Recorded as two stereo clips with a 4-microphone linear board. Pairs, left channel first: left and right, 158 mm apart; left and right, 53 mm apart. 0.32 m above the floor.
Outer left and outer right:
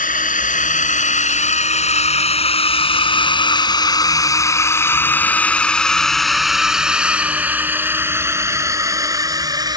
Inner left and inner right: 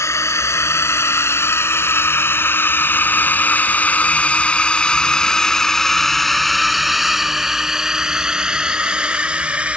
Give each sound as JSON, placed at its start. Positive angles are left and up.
{"t": 0.0, "sound": "a drone", "side_deg": 60}